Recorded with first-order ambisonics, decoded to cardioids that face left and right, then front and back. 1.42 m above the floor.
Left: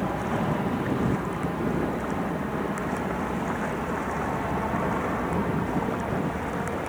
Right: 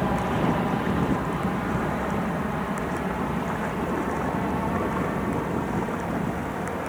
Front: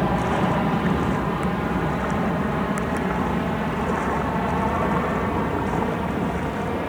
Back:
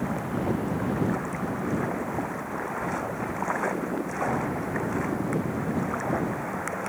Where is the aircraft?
20° right; by 6.9 s 5° left.